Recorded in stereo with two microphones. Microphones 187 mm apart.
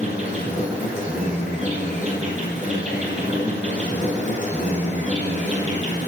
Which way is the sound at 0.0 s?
35° right (ahead or behind).